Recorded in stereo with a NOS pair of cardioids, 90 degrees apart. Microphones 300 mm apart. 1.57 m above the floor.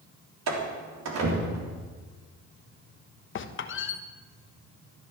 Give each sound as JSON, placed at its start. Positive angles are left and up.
{"t": 0.5, "sound": "a door slam", "azimuth_deg": -65, "distance_m": 3.5}
{"t": 3.4, "sound": "a squeak", "azimuth_deg": 45, "distance_m": 1.4}